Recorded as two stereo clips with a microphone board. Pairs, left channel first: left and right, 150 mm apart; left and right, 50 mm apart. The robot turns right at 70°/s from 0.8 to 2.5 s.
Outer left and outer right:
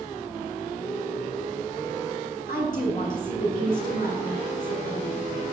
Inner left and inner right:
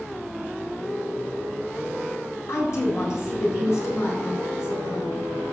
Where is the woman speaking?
70° left (ahead or behind), 4 m.